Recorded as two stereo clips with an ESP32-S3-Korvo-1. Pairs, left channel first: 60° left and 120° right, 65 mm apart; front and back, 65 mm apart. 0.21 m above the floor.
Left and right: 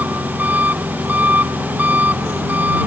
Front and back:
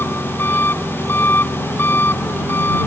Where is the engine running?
55° right.